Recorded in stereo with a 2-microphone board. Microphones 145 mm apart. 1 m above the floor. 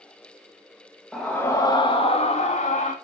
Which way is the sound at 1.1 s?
Centre (ahead or behind).